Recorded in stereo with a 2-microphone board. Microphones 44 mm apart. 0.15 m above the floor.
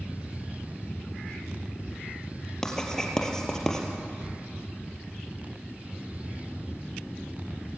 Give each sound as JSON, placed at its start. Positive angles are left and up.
{"t": 2.6, "sound": "writing", "side_deg": 10, "distance_m": 3.0}